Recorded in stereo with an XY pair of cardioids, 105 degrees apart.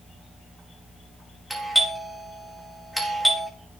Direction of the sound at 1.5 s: 5° right.